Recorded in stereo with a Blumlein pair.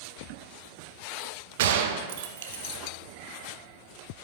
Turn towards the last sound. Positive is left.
turn(degrees=-55)